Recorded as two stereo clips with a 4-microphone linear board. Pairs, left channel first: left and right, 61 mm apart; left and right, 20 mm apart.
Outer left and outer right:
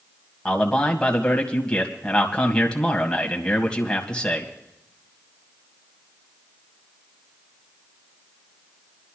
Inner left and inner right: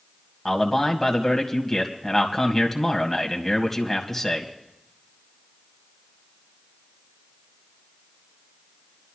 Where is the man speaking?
15° left (ahead or behind), 1.9 m.